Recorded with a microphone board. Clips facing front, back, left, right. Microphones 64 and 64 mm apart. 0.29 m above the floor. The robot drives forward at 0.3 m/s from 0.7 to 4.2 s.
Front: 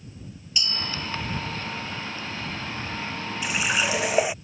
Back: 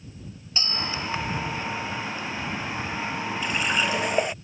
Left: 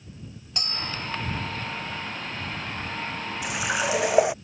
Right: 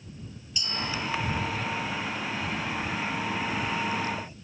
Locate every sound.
0.6 s a bell: 125° left
3.4 s a running tap: 80° left